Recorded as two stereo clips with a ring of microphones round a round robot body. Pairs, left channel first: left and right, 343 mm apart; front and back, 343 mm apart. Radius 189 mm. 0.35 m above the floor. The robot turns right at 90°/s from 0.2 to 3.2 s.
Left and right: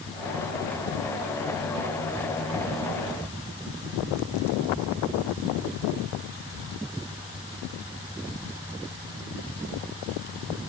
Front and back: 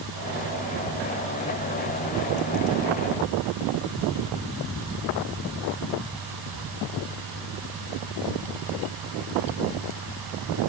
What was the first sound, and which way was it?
Only background noise.